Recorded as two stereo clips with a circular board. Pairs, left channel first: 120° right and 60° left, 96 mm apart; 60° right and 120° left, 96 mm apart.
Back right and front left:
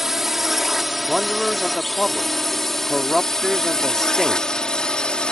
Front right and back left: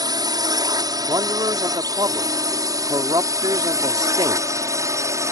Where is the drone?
145° left; by 5.3 s 165° left.